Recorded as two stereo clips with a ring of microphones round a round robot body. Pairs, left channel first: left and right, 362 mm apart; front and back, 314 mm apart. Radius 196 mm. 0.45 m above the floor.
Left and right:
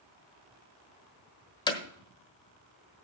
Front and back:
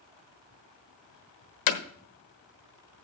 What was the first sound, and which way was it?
Hammering, 10° left.